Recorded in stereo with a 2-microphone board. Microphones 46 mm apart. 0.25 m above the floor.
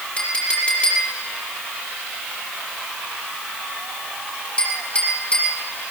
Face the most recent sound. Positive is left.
turn(degrees=30)  # may be behind; listen again after turning